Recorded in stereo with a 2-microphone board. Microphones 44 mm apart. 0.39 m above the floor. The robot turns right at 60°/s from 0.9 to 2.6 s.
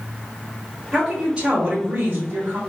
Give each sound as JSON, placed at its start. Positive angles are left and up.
{"t": 0.9, "sound": "a woman speaking", "azimuth_deg": -175, "distance_m": 1.3}